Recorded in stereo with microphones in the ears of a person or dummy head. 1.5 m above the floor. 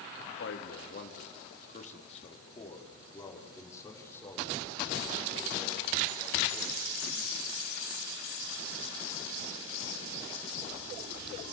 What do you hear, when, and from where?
0.4 s a man speaking: 75° left (ahead or behind), 3 m; by 7.4 s centre (ahead or behind), 9 m